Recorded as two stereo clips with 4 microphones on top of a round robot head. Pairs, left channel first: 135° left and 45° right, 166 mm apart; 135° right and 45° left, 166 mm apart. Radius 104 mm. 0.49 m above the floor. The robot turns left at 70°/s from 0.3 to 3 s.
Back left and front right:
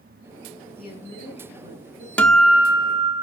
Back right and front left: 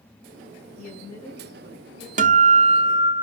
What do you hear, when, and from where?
0.8 s a woman speaking: straight behind, 4.5 m; by 2.1 s 90° left, 4.5 m
2.2 s a guitar: 55° left, 0.7 m; by 3.2 s straight ahead, 0.7 m